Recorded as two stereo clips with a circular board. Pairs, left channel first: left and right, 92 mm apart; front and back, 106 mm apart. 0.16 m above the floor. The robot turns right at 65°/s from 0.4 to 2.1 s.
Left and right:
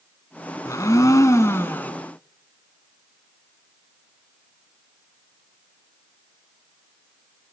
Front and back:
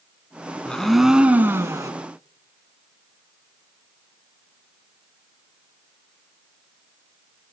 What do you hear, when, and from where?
0.7 s a blender: 70° left, 1.7 m; by 1.9 s 150° left, 1.7 m